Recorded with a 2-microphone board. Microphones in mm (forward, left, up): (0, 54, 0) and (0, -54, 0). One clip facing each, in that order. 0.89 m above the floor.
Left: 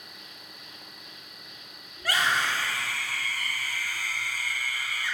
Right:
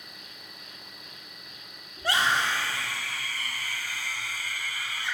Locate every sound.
0.0 s an insect: 30° left (ahead or behind), 3 m
2.0 s a scream: 30° right (ahead or behind), 2.5 m